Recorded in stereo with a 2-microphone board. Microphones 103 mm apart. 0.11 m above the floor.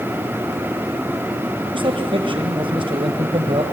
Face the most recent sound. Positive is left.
turn(degrees=-55)  # may be behind; listen again after turning